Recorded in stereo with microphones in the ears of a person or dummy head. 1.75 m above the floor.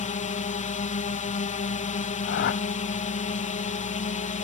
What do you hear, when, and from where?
0.0 s a drone: 35° left (ahead or behind)
2.3 s a whoosh: 60° left (ahead or behind)